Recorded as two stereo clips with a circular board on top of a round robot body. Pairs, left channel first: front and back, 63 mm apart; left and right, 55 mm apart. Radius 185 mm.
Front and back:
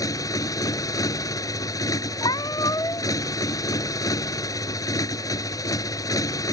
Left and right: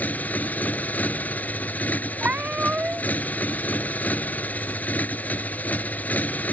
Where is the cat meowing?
20° right.